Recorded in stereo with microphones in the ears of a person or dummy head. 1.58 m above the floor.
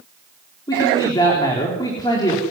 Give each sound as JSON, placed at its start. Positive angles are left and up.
{"t": 0.7, "sound": "a man speaking", "side_deg": 25, "distance_m": 4.0}